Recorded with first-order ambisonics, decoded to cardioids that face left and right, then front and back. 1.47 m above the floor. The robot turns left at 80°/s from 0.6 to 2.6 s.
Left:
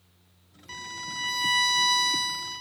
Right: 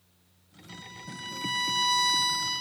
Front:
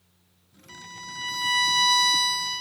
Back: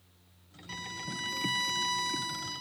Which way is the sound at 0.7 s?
115° left.